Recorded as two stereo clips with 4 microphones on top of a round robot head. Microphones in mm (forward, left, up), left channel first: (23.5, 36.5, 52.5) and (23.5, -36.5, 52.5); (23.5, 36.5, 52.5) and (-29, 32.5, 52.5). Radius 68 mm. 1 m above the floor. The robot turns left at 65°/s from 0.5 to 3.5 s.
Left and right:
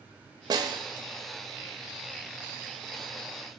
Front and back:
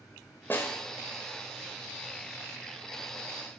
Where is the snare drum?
60° right, 1.2 m; by 0.8 s 80° right, 1.2 m.